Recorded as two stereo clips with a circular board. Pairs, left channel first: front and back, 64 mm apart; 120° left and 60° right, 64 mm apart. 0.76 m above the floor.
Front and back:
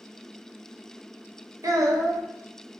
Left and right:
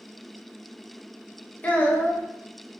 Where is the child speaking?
175° right, 0.6 m.